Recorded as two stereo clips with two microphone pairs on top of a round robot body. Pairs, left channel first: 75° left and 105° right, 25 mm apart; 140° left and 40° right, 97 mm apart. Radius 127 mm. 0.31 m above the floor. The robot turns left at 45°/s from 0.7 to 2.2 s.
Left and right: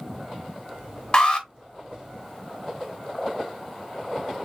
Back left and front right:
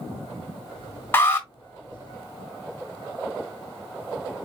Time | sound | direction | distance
1.1 | an alarm | 160° left | 2.5 m